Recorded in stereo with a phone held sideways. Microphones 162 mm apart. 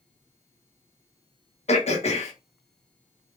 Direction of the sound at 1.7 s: 45° left (ahead or behind).